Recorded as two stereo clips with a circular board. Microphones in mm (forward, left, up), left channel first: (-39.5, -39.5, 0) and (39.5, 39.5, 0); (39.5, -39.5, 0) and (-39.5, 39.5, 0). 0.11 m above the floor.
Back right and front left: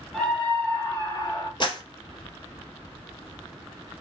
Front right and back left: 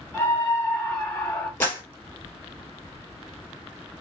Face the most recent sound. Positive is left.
turn(degrees=-110)